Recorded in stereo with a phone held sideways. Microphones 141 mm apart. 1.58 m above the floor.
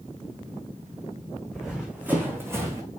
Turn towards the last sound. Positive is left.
turn(degrees=-25)  # may be behind; listen again after turning